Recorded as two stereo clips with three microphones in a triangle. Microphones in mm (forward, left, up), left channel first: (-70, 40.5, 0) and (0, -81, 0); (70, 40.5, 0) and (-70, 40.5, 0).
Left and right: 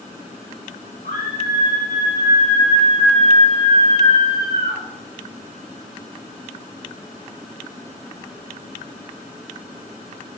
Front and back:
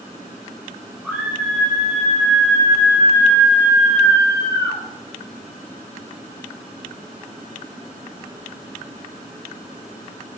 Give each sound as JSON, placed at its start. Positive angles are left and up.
{"t": 1.0, "sound": "a scream", "azimuth_deg": 100, "distance_m": 5.5}